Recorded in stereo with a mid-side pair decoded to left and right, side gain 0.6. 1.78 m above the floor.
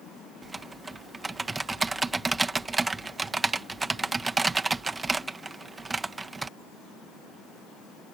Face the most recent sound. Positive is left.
turn(degrees=-15)